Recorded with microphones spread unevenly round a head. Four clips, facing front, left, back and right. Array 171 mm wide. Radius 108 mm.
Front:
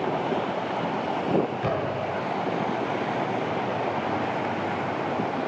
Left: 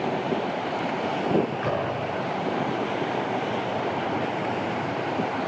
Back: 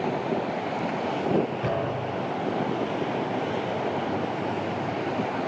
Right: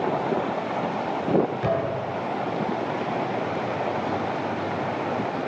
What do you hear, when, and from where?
1.6 s a thud: 125° right, 10 m